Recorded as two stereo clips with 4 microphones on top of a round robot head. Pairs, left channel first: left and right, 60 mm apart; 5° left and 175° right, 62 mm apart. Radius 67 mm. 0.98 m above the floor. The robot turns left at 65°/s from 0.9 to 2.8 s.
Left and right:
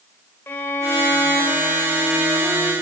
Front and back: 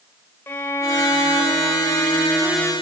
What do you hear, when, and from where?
0.5 s a violin: 50° left, 0.8 m; by 2.7 s 70° right, 0.8 m